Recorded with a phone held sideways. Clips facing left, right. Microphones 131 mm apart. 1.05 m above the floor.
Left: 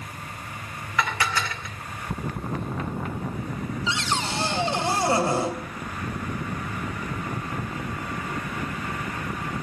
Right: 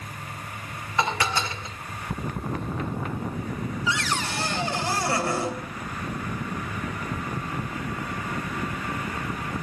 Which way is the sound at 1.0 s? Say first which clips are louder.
Right 1 dB; 25° right (ahead or behind).